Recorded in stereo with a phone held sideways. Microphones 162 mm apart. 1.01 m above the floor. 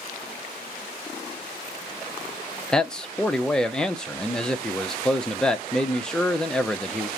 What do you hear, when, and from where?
2.7 s a man speaking: 5° left (ahead or behind), 0.6 m